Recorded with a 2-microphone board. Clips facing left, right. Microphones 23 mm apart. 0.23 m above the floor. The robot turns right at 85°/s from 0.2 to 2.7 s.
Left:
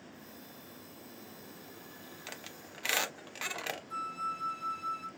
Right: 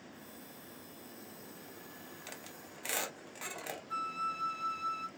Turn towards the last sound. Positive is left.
turn(degrees=-25)  # may be behind; listen again after turning